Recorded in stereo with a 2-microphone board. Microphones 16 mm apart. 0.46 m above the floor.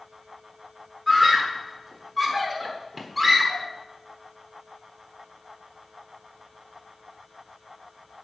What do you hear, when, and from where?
1.1 s a scream: 5° left (ahead or behind), 1.2 m